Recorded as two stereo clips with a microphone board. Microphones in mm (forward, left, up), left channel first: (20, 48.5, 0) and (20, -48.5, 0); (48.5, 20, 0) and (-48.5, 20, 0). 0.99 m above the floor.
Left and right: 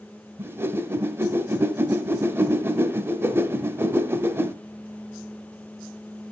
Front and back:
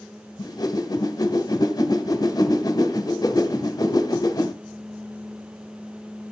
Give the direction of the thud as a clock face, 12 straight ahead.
I don't hear a thud.